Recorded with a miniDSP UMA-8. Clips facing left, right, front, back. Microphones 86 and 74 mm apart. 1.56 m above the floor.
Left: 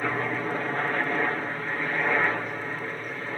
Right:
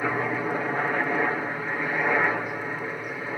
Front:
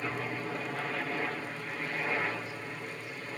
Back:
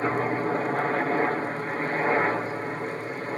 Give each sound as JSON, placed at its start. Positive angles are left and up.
{"t": 0.0, "sound": "a helicopter", "azimuth_deg": -170}